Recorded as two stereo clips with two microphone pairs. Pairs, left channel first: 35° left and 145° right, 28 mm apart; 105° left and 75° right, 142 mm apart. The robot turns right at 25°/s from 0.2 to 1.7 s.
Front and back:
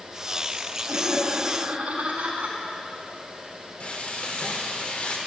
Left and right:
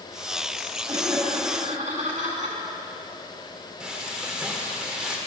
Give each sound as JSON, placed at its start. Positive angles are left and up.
{"t": 0.9, "sound": "laughter", "azimuth_deg": -140, "distance_m": 3.0}
{"t": 3.8, "sound": "frying", "azimuth_deg": 10, "distance_m": 2.0}